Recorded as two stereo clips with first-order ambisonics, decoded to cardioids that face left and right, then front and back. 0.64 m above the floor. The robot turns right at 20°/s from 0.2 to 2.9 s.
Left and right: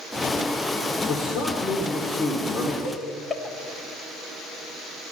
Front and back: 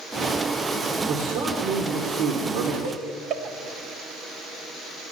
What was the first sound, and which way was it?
A man speaking, 135° left.